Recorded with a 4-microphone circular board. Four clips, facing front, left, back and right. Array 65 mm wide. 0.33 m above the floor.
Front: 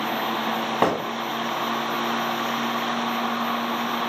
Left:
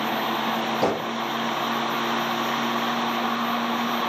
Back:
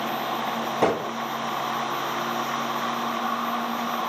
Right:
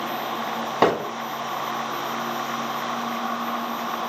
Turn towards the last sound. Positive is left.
turn(degrees=-60)